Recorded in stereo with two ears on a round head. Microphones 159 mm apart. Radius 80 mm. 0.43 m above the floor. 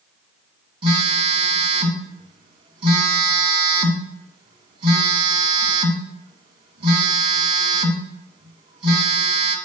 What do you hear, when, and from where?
0.8 s a phone buzzing: 25° right (ahead or behind), 1.1 m